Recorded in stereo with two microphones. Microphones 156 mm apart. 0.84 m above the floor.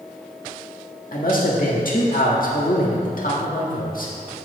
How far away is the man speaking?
About 1.6 m.